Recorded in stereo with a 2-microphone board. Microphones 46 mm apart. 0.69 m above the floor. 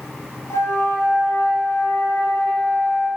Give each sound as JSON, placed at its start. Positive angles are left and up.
{"t": 0.5, "sound": "a flute", "side_deg": 85, "distance_m": 2.0}